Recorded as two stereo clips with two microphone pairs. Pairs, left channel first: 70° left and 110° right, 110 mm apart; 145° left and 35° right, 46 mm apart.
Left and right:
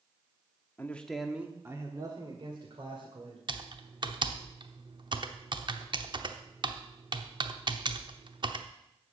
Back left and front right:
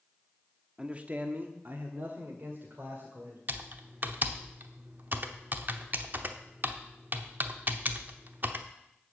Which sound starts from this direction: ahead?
A man speaking, at 0.8 s.